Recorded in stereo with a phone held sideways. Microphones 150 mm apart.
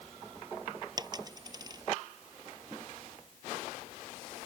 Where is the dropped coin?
25° right (ahead or behind).